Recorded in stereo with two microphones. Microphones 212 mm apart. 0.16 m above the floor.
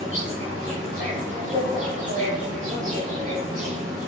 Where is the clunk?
I don't hear a clunk.